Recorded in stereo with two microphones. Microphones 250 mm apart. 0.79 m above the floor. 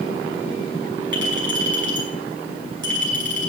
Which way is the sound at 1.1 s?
50° right (ahead or behind).